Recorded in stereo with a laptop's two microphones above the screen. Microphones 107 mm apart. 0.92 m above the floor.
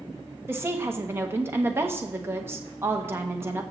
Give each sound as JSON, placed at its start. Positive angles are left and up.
{"t": 0.5, "sound": "a woman speaking", "side_deg": -20, "distance_m": 0.9}